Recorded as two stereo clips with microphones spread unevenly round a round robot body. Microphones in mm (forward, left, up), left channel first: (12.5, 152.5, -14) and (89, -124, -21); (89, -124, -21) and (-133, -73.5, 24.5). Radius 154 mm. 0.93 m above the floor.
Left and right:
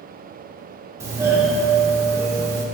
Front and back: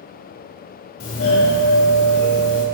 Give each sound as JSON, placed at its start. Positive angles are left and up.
{"t": 1.0, "sound": "a doorbell", "azimuth_deg": 5, "distance_m": 1.8}